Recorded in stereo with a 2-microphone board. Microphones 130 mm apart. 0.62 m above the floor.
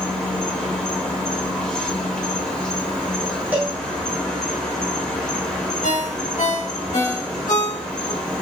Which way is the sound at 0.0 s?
5° left (ahead or behind).